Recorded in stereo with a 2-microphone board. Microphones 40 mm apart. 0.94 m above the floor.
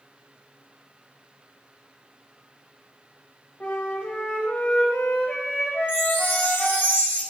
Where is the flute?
40° left (ahead or behind), 3.5 m.